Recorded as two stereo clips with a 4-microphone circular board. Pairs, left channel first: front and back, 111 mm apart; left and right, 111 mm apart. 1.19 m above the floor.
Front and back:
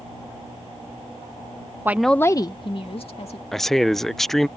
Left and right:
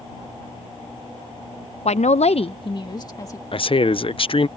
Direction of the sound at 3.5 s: 85° left.